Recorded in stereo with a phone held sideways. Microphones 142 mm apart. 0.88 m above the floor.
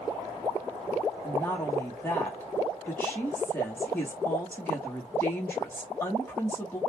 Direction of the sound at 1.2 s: 15° left (ahead or behind).